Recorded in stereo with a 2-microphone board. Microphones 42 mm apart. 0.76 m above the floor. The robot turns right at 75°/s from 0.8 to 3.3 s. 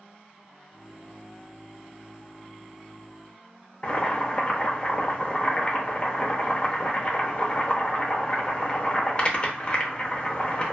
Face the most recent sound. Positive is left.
turn(degrees=30)  # may be behind; listen again after turning